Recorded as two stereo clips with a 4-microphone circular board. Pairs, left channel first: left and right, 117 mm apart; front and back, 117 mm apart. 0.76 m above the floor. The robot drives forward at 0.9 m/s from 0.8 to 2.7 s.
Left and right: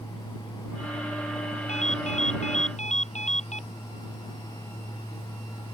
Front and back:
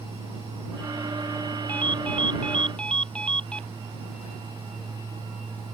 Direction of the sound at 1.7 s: 80° left.